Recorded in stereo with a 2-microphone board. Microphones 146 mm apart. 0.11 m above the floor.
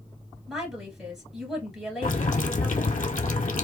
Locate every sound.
0.5 s a woman speaking: 5° right (ahead or behind), 1.8 m
2.0 s boiling: 65° left (ahead or behind), 0.6 m